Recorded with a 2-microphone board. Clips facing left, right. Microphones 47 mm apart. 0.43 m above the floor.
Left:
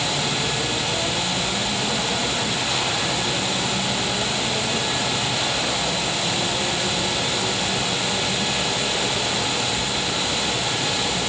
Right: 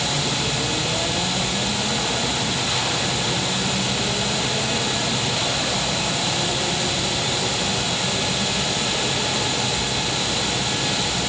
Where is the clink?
No clink in this recording.